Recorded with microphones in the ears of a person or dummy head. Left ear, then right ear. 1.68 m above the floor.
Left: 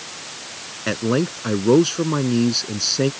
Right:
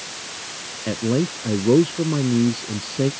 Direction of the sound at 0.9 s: 55° left (ahead or behind).